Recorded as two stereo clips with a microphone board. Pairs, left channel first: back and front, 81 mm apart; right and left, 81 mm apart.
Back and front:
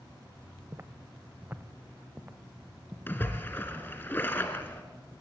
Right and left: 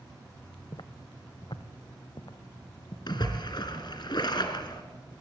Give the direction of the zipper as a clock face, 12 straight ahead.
No zipper in this recording.